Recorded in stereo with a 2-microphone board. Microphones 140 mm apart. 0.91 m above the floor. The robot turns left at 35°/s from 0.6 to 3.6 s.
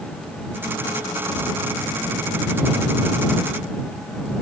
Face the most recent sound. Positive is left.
No sound to turn to.